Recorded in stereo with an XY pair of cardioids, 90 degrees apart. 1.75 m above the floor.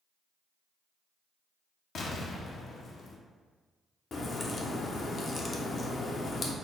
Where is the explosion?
65° left, 0.6 m.